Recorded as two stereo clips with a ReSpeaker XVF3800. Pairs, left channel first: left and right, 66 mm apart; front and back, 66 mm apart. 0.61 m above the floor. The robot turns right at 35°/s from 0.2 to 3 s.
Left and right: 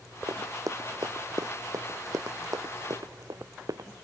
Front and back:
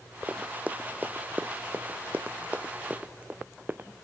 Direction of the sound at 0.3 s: 120° right.